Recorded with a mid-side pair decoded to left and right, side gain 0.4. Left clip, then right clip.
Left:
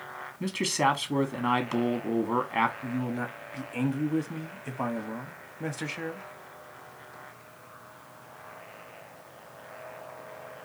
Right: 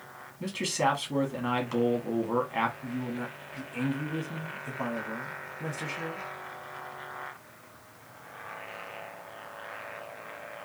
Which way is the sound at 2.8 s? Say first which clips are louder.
Left 3 dB; 40° left.